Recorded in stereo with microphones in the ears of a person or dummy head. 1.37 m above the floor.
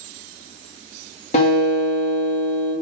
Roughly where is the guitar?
Left.